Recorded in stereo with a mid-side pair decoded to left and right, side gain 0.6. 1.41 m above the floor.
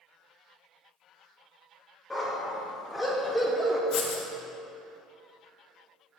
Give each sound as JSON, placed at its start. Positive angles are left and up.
{"t": 2.1, "sound": "a dog barking", "azimuth_deg": 15, "distance_m": 2.5}
{"t": 3.9, "sound": "writing", "azimuth_deg": 55, "distance_m": 1.6}